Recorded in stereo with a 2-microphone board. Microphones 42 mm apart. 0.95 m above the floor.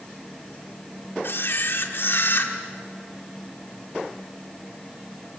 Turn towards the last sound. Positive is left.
turn(degrees=60)  # may be behind; listen again after turning